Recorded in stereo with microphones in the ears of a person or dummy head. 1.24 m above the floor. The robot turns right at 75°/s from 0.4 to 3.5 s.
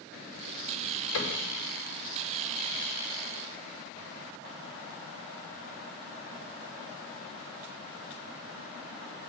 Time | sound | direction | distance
1.1 | a cupboard door | 85° left | 3.5 m